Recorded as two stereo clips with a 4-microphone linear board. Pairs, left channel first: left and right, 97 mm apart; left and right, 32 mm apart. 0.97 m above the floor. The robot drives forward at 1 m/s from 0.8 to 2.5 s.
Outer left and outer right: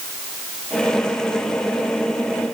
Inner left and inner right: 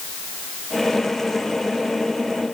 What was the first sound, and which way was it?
Only background noise.